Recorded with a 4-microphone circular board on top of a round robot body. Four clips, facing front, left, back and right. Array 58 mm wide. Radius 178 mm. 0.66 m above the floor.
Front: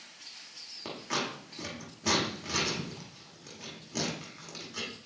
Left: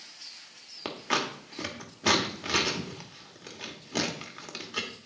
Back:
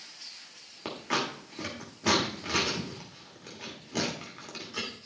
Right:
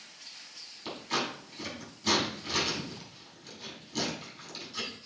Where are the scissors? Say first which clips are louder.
Left 3 dB, back 3 dB; 105° left, 1.6 m.